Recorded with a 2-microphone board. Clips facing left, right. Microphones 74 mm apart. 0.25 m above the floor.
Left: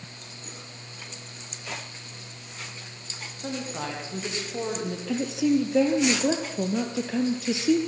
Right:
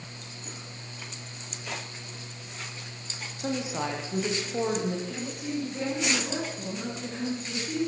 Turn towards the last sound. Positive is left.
turn(degrees=75)  # may be behind; listen again after turning